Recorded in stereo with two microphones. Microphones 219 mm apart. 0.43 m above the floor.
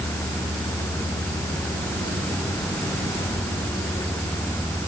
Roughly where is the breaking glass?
I don't hear breaking glass.